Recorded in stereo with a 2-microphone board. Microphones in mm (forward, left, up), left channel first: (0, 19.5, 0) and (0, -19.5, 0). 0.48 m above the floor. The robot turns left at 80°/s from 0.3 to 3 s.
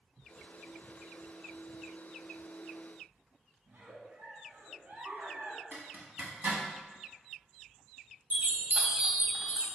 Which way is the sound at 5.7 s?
45° right (ahead or behind).